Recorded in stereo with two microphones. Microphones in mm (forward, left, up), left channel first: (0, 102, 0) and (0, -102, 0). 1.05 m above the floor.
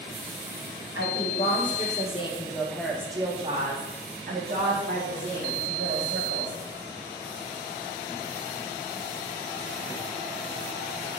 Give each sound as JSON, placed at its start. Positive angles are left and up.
{"t": 0.9, "sound": "a woman speaking", "side_deg": 55, "distance_m": 1.3}